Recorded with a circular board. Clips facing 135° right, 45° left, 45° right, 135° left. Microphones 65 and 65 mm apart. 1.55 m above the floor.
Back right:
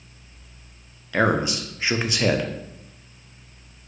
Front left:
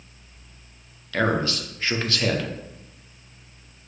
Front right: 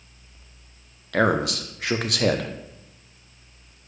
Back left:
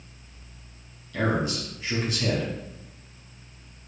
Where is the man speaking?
60° right, 0.7 m.